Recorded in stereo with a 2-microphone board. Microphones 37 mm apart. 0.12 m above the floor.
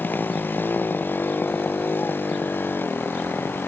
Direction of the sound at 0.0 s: 60° left (ahead or behind).